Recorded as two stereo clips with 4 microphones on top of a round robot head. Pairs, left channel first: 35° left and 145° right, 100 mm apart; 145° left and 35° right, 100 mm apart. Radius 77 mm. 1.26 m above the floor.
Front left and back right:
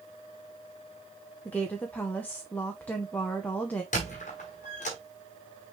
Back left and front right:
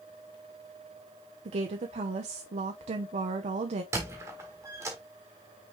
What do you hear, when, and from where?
1.4 s a woman speaking: 40° right, 0.7 m
3.9 s a squeak: 25° left, 1.3 m